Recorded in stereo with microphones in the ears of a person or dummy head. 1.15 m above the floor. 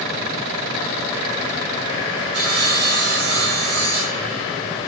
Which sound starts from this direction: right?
Sawing, at 2.3 s.